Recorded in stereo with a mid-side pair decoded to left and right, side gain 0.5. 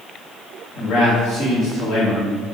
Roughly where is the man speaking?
Left.